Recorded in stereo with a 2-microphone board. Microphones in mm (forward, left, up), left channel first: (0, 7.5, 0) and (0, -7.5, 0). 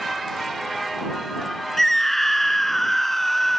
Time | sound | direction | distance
1.8 | a scream | 15° left (ahead or behind) | ?